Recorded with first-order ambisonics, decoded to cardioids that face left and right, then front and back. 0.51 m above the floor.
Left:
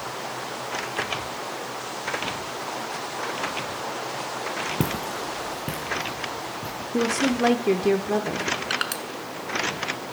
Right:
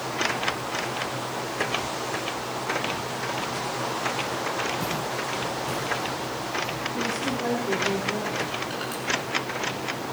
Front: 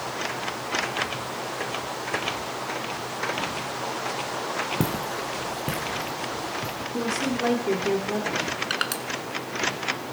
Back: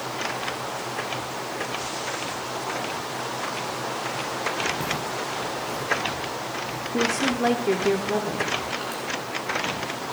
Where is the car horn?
No car horn in this recording.